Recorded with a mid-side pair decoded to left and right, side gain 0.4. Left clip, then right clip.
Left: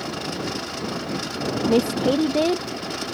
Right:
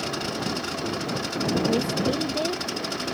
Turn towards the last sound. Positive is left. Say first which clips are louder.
# left 4 dB
turn(degrees=60)